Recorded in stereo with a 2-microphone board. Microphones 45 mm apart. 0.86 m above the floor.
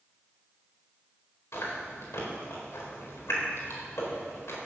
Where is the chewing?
75° left (ahead or behind), 4 m.